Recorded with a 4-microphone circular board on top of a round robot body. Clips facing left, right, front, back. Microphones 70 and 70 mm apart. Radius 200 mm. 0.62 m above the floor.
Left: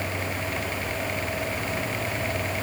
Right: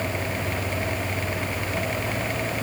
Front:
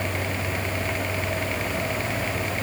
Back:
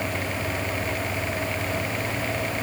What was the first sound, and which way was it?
Only background noise.